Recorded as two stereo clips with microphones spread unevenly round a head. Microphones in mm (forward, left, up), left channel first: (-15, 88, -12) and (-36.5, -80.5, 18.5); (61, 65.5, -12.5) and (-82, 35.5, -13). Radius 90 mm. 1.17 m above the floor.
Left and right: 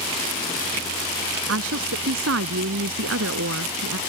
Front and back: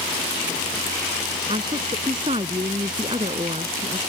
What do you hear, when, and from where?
1.5 s a woman speaking: 100° right